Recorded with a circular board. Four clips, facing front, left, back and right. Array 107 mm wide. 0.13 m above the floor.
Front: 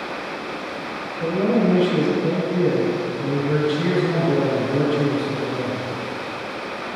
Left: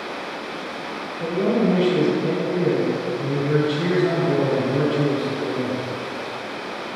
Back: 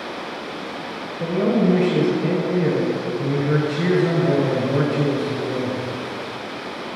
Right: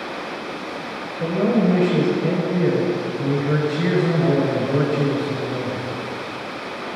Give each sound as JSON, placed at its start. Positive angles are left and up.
{"t": 1.2, "sound": "a man speaking", "azimuth_deg": -140, "distance_m": 1.5}